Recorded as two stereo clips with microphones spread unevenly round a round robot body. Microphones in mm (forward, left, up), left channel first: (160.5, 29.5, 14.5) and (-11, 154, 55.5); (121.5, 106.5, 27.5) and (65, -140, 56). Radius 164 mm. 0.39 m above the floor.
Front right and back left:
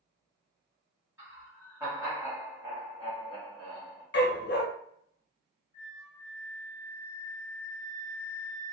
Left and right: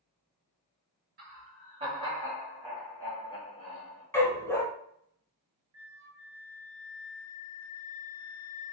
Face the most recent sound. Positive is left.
turn(degrees=-105)